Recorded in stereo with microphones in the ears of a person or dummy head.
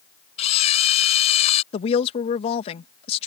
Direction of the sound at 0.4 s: 35° left (ahead or behind).